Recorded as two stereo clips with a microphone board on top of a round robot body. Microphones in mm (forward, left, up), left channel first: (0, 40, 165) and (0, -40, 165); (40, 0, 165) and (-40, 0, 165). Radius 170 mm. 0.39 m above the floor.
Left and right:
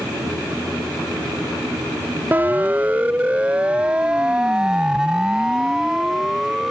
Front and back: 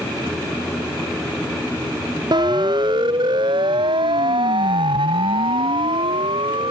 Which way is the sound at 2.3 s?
160° right.